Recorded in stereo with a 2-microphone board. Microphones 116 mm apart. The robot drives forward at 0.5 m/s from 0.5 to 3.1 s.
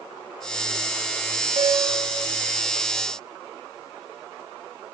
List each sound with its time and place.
1.6 s a piano: 60° right (ahead or behind), 2.5 m